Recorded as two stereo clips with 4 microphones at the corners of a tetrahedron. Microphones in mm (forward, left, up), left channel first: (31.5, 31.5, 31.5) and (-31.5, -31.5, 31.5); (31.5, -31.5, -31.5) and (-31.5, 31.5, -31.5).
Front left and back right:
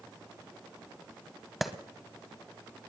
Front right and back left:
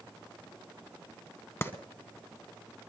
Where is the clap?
50° right, 1.2 m.